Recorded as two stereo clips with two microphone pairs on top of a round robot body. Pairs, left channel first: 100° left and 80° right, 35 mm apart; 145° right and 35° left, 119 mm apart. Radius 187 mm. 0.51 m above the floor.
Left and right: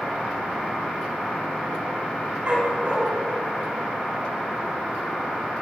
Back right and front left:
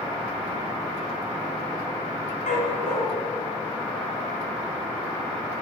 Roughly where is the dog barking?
Behind right.